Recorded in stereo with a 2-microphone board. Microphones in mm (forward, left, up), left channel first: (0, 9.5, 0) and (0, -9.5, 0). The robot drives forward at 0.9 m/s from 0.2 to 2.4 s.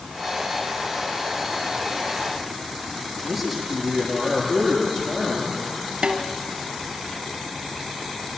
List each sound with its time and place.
3.2 s a man speaking: 20° right (ahead or behind), 9 m
6.0 s a snare drum: 80° right, 2 m